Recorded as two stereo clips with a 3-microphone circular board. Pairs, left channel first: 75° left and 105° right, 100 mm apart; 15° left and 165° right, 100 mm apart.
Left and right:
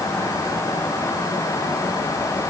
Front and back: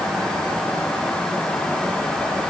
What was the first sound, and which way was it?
Only background noise.